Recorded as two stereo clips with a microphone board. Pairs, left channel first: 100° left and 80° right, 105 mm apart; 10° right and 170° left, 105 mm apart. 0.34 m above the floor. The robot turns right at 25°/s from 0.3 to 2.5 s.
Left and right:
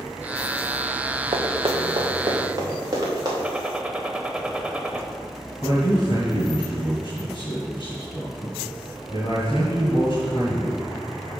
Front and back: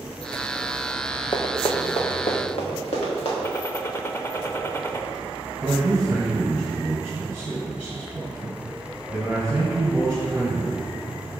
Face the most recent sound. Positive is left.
turn(degrees=90)